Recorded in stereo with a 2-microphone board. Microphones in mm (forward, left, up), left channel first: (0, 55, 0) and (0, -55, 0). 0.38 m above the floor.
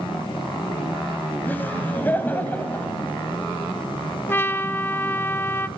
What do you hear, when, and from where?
1.4 s laughter: 15° left (ahead or behind), 2 m
4.3 s a trumpet: 20° left (ahead or behind), 0.6 m